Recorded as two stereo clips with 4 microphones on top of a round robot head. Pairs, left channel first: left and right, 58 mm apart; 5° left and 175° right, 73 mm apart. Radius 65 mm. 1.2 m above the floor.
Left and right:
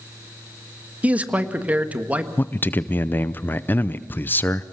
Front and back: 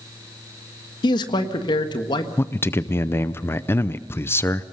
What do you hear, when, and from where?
1.0 s a man speaking: 25° right, 1.6 m
2.4 s a man speaking: 45° left, 0.6 m